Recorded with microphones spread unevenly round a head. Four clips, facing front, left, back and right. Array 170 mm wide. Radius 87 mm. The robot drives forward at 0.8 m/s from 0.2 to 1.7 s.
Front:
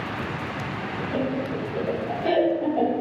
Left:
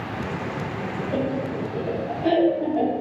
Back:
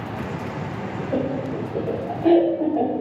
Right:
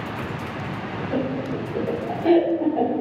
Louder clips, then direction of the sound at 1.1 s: Right 1 dB, back 2 dB; straight behind.